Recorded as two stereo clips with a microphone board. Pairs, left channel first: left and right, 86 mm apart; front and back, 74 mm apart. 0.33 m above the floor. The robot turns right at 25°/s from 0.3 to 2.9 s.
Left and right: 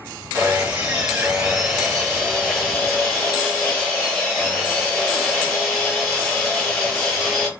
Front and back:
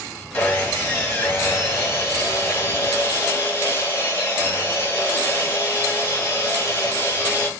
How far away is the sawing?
About 1.8 m.